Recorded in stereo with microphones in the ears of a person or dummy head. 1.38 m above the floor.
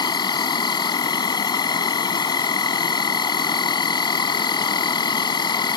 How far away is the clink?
No clink in this recording.